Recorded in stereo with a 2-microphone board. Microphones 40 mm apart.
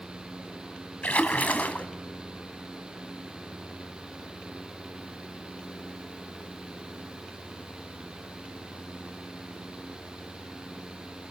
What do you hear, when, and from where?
1.0 s a splash: 40° left (ahead or behind), 2.0 m